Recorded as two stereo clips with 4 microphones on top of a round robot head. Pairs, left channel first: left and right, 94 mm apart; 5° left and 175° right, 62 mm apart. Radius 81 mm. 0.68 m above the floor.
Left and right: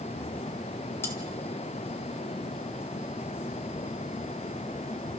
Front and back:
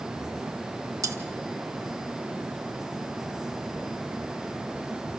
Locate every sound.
1.0 s cutlery clinking: 160° left, 1.8 m